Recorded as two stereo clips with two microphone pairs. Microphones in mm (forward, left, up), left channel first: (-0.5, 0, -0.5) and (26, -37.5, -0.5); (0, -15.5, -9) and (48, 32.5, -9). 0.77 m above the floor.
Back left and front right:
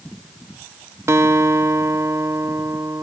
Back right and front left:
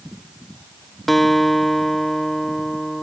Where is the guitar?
45° right.